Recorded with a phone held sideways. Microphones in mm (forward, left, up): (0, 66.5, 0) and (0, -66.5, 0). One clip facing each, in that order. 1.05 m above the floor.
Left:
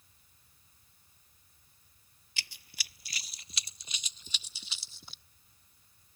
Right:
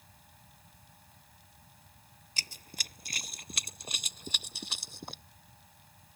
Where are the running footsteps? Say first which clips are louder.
Right 2 dB; 40° right (ahead or behind); by 5.2 s 55° right (ahead or behind).